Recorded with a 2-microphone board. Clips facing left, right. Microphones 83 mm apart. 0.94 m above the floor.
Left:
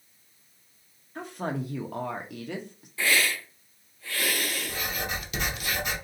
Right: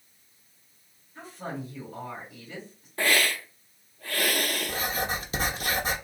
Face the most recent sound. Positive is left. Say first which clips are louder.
# right 3 dB
turn(degrees=-35)  # may be behind; listen again after turning